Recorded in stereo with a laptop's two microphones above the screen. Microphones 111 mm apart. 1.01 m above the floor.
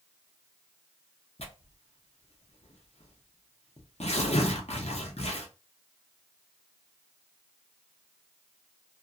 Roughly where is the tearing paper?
Left.